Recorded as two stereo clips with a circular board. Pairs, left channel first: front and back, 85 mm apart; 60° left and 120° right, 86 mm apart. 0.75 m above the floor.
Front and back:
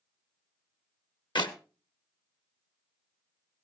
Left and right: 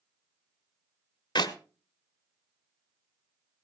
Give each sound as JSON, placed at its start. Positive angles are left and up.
{"t": 1.4, "sound": "a clap", "azimuth_deg": 25, "distance_m": 1.3}